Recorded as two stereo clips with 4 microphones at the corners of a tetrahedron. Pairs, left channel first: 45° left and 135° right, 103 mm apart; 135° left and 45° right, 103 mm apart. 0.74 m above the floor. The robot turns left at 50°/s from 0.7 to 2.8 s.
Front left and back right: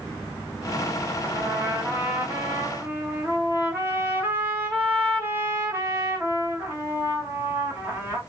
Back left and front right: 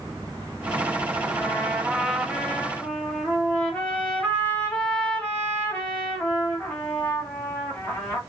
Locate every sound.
1.2 s a trumpet: 90° right, 1.0 m; by 8.2 s 165° right, 1.0 m